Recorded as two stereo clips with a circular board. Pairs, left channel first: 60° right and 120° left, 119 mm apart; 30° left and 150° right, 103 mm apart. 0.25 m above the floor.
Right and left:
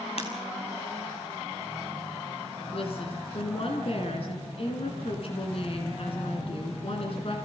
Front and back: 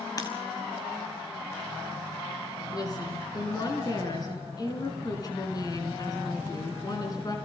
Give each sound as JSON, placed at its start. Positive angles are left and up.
{"t": 0.2, "sound": "breaking glass", "azimuth_deg": -20, "distance_m": 5.5}
{"t": 2.7, "sound": "a woman speaking", "azimuth_deg": -20, "distance_m": 7.5}